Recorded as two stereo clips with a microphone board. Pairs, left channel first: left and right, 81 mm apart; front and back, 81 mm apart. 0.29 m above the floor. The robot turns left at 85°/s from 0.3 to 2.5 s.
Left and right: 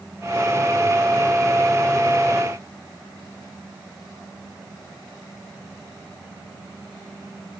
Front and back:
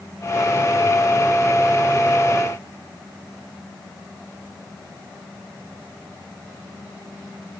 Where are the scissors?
No scissors in this recording.